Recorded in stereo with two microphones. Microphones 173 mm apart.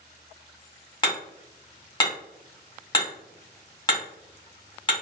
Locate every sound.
1.0 s hammering: 25° left (ahead or behind), 1.6 m